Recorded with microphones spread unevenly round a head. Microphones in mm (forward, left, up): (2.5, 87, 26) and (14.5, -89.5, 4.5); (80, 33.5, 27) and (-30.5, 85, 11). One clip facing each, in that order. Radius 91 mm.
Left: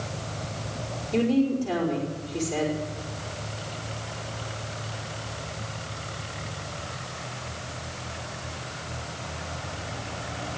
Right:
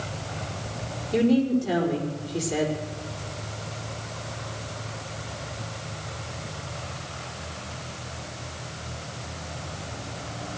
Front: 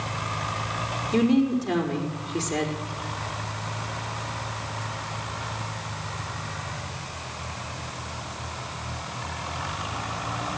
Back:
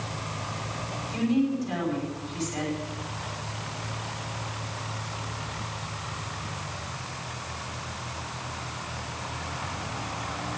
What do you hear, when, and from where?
1.1 s a woman speaking: 5° right, 5.5 m